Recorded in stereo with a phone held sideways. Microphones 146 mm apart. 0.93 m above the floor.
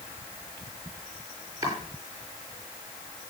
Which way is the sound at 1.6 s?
25° right (ahead or behind).